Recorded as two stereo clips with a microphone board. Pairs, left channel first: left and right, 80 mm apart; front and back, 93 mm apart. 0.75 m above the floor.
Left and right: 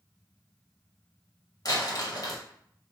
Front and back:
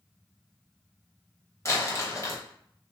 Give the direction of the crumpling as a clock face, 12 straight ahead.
10 o'clock.